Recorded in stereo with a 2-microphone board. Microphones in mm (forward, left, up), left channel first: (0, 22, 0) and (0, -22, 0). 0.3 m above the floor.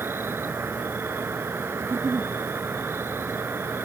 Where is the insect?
75° right (ahead or behind).